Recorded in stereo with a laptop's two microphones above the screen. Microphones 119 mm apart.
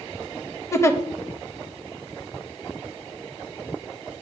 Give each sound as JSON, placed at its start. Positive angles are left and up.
{"t": 0.7, "sound": "a giggle", "side_deg": 25, "distance_m": 0.7}